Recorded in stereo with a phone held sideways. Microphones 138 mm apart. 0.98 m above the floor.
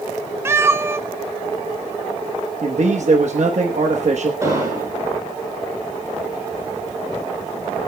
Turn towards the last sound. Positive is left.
turn(degrees=-25)  # may be behind; listen again after turning